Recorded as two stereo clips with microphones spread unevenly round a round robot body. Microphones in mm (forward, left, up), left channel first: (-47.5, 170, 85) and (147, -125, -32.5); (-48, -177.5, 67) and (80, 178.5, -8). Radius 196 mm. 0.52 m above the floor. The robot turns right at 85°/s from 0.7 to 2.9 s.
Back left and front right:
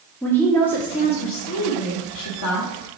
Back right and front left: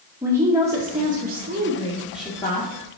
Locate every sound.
0.2 s a woman speaking: 15° left, 1.1 m; by 2.7 s 175° right, 1.1 m